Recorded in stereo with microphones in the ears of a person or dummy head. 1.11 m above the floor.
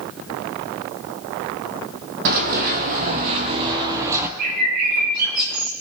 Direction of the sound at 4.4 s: 55° right (ahead or behind).